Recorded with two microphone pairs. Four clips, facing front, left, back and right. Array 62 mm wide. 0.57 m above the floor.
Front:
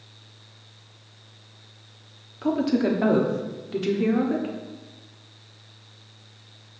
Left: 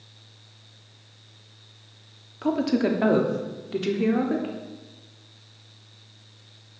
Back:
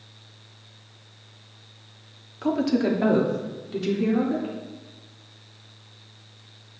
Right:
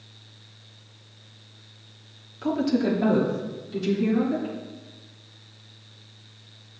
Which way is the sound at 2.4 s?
125° left.